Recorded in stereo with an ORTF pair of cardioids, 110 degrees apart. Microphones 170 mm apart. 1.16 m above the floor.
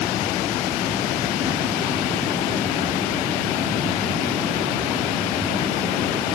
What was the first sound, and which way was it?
Only background noise.